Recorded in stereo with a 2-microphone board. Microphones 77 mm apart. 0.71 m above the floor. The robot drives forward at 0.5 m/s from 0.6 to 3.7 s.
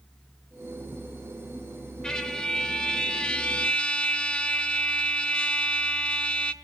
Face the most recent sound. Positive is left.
turn(degrees=15)  # may be behind; listen again after turning